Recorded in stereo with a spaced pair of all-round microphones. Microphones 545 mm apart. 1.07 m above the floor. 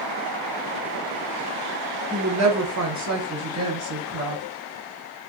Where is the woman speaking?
30° right (ahead or behind), 0.6 m; by 4.4 s 25° right (ahead or behind), 1.2 m.